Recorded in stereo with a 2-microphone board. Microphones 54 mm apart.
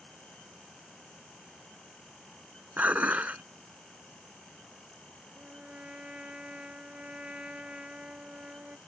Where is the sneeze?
I don't hear a sneeze.